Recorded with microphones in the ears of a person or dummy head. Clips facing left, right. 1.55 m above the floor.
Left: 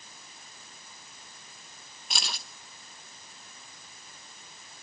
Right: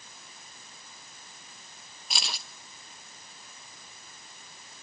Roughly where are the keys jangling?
Centre.